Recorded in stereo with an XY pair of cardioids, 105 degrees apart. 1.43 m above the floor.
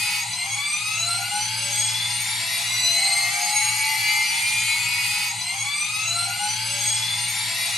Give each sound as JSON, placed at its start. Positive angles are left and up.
{"t": 0.0, "sound": "a machine running", "azimuth_deg": 10, "distance_m": 1.7}